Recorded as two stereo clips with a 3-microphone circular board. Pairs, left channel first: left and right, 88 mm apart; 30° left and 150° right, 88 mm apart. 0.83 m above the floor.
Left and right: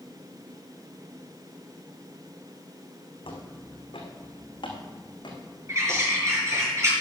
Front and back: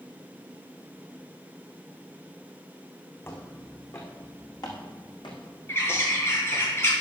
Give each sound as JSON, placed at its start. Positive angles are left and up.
{"t": 3.2, "sound": "footsteps", "azimuth_deg": 90, "distance_m": 4.0}
{"t": 5.7, "sound": "a bird", "azimuth_deg": -30, "distance_m": 5.5}